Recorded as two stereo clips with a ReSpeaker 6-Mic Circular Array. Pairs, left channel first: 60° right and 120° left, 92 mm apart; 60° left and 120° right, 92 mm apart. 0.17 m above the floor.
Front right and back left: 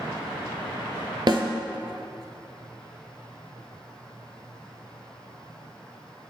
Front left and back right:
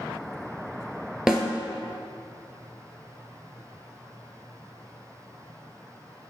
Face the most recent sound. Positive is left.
turn(degrees=155)